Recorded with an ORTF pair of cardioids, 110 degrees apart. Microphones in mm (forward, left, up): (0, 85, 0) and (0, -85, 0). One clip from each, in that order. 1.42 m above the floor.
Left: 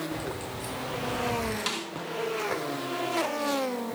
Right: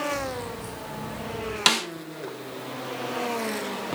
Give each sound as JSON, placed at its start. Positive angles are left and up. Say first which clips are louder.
{"t": 0.1, "sound": "keys jangling", "louder": "right 4 dB", "azimuth_deg": 25, "distance_m": 7.5}
{"t": 1.7, "sound": "a snare drum", "louder": "right 10 dB", "azimuth_deg": -70, "distance_m": 1.6}